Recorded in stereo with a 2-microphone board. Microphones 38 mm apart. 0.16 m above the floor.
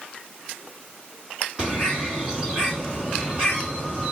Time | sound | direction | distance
1.6 | a bird | 30° right (ahead or behind) | 1.7 m